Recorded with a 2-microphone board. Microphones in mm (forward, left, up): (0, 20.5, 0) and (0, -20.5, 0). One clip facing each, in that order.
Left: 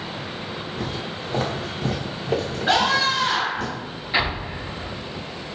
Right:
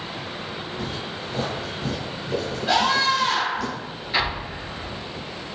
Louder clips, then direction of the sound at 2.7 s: Even; 55° left (ahead or behind).